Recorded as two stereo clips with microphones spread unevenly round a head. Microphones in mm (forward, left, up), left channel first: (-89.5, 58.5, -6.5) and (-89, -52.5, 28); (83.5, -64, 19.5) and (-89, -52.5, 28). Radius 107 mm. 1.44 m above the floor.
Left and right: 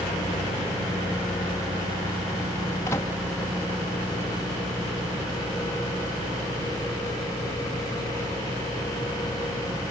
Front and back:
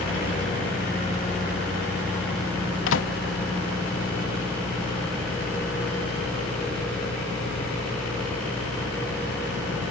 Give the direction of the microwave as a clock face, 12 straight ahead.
12 o'clock.